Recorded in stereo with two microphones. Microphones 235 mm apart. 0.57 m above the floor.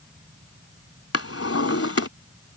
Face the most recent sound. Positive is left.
turn(degrees=80)